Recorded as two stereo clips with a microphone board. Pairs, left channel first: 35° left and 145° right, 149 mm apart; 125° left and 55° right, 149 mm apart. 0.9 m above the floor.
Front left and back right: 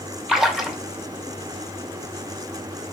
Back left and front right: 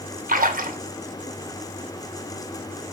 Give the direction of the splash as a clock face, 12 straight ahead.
2 o'clock.